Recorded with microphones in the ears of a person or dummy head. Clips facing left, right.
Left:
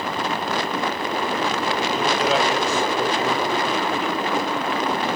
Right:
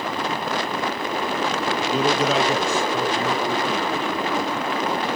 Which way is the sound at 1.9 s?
80° right.